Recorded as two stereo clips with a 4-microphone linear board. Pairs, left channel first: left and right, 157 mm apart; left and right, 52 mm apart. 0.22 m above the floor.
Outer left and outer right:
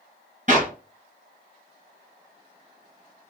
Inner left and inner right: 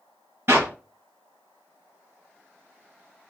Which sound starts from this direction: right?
A clap, at 0.5 s.